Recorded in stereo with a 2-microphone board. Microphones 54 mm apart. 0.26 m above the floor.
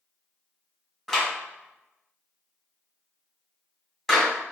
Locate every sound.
1.1 s a clap: centre (ahead or behind), 1.9 m